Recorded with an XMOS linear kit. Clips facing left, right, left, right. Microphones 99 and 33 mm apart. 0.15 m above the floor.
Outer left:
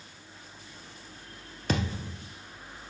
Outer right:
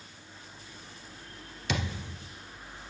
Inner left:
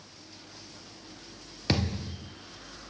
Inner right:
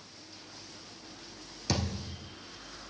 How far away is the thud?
About 1.2 m.